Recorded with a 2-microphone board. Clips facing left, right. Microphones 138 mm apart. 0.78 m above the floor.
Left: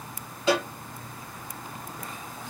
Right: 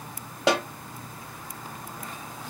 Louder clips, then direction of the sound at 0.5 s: Right 1 dB; 90° right.